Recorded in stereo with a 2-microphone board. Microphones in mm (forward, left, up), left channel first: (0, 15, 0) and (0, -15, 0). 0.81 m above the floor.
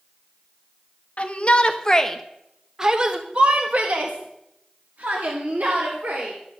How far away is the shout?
About 1.0 m.